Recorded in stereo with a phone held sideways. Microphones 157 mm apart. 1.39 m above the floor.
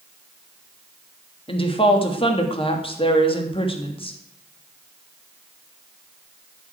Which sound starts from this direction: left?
A woman speaking, at 1.5 s.